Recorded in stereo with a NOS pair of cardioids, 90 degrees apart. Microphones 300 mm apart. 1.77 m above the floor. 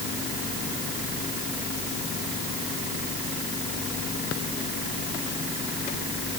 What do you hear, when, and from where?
Only background noise.